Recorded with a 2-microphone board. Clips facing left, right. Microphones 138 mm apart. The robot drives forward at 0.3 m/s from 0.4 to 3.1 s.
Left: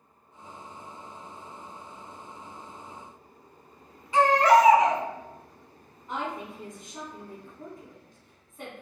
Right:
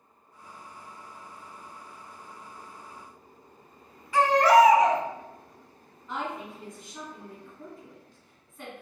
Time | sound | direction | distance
4.1 | a baby crying | 25° left (ahead or behind) | 0.6 m
6.1 | a woman speaking | 20° left (ahead or behind) | 1.4 m